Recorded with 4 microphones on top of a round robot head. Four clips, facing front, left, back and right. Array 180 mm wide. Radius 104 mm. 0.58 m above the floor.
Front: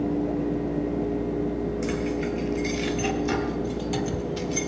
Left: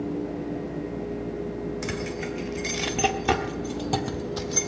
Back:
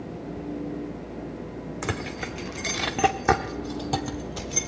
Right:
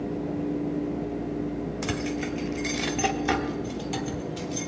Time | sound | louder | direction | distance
1.8 | keys jangling | right 1 dB, front 6 dB | 165° right | 1.4 m